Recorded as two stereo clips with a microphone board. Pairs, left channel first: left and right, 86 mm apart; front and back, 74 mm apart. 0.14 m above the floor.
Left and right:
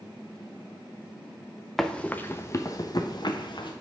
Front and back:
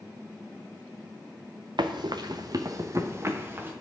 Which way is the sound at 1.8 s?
175° left.